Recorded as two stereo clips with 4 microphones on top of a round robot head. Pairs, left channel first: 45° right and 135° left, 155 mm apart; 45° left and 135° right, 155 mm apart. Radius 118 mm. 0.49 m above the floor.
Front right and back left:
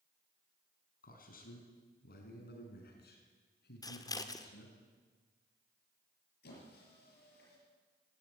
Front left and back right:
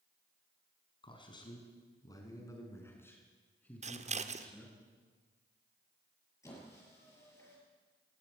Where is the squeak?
30° right, 7 m.